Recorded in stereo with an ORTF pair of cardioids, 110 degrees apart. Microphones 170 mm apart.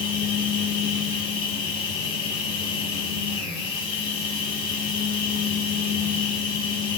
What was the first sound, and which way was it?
A machine running, 60° left.